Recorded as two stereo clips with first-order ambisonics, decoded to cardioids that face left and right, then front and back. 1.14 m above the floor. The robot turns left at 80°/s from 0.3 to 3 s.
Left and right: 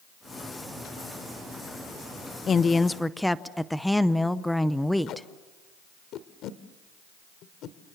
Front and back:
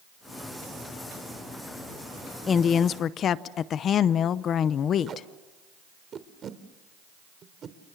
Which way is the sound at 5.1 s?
125° left.